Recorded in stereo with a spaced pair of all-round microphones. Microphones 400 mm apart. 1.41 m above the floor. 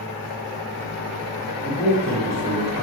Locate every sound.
1.6 s a man speaking: 15° right (ahead or behind), 1.4 m